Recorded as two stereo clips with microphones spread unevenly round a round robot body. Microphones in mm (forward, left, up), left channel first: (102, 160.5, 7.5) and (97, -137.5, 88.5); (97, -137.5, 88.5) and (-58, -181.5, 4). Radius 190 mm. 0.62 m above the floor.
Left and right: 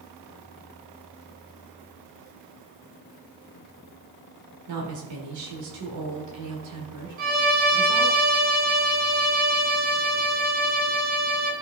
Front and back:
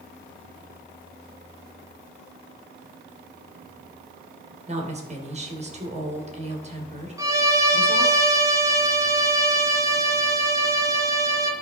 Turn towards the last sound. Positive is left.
turn(degrees=-160)